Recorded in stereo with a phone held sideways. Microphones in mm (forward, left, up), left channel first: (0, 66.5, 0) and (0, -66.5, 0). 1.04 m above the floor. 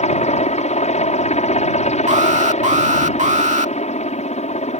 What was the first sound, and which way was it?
A helicopter, 60° left (ahead or behind).